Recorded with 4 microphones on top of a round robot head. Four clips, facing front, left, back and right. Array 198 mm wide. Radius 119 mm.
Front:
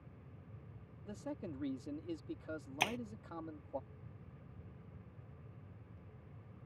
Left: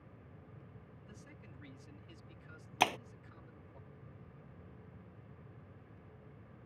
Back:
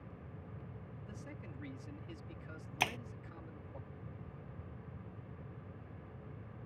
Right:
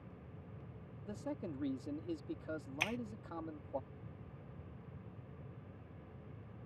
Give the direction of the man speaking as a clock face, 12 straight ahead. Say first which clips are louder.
Right 18 dB, front 9 dB; 2 o'clock.